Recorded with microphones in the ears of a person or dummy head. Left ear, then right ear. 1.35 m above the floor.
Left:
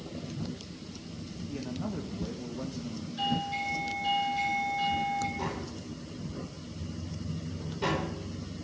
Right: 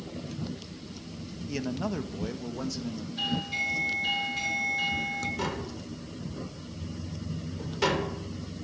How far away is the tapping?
About 4 m.